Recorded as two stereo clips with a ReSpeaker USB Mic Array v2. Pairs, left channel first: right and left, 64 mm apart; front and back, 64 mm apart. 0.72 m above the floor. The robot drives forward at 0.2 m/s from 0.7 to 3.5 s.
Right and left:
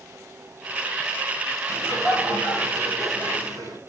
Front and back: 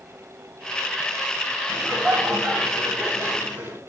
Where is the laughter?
115° left, 3.5 m; by 3.8 s 120° left, 3.5 m.